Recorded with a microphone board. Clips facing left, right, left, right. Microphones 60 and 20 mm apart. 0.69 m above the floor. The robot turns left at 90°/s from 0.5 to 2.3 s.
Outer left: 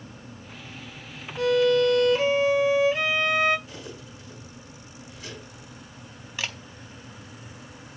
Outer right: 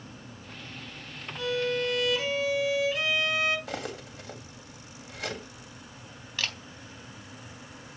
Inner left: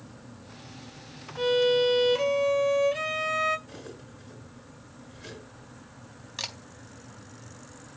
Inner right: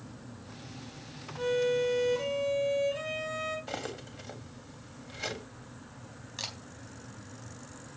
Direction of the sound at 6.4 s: 15° left (ahead or behind).